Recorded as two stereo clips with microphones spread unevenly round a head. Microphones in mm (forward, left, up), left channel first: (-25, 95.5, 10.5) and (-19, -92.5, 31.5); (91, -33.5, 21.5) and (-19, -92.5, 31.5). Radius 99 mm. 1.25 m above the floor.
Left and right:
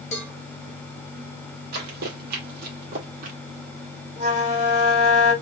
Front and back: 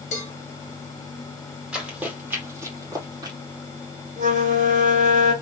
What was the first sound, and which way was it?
A cowbell, 35° left.